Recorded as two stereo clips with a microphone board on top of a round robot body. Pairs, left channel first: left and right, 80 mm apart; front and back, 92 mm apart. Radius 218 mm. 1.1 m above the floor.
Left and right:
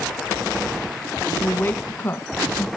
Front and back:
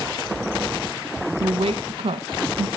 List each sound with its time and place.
1.4 s a woman speaking: 155° left, 1.3 m